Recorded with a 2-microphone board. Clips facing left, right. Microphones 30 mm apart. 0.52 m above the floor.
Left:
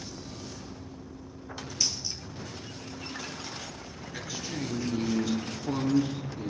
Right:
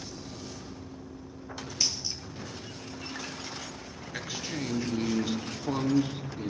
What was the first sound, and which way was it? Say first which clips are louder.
A dropped coin: right 1 dB; 20° right (ahead or behind).